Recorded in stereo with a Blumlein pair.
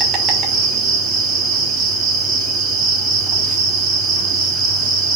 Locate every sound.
0.0 s an insect: 25° right, 1.2 m